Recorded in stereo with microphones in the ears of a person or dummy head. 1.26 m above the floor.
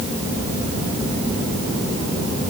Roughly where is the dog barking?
I don't hear a dog barking.